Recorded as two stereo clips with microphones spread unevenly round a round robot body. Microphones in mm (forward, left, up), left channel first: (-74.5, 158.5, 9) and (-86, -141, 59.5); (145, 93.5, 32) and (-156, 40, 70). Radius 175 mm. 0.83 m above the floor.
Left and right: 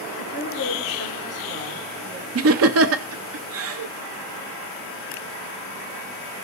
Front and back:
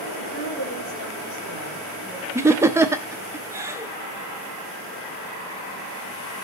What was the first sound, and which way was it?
A woman speaking, 40° right.